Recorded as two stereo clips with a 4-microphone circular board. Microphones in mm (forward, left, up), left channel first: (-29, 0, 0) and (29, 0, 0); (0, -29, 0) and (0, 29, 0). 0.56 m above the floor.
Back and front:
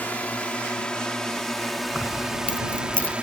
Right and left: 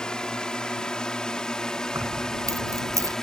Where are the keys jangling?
110° left.